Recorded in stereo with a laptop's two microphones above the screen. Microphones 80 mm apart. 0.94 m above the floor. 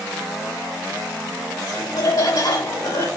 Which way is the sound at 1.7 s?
65° left (ahead or behind).